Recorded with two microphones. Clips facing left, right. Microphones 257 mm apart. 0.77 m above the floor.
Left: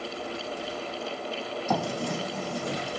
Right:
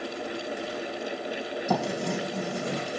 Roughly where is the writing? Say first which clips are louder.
Right 1 dB; right.